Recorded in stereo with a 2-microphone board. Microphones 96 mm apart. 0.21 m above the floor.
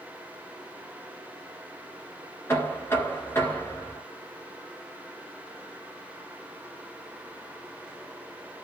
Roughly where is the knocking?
Left.